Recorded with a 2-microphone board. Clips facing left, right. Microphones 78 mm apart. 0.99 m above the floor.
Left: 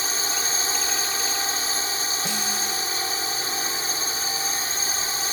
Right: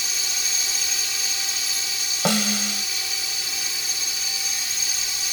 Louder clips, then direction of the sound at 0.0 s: Left 5 dB; 40° left (ahead or behind).